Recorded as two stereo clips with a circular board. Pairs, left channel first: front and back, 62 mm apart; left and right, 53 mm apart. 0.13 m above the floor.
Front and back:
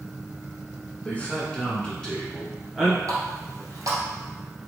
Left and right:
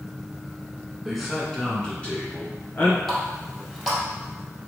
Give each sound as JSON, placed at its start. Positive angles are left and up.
{"t": 1.1, "sound": "a man speaking", "azimuth_deg": -5, "distance_m": 1.1}
{"t": 3.1, "sound": "a running tap", "azimuth_deg": 180, "distance_m": 1.7}